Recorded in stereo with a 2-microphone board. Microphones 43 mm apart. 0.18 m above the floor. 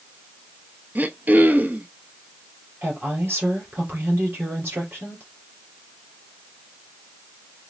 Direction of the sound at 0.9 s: 45° right (ahead or behind).